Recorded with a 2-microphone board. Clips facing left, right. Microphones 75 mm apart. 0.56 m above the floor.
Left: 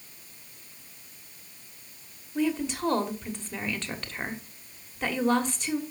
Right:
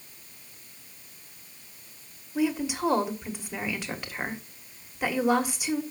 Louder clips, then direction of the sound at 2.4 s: Right 1 dB; 10° right (ahead or behind).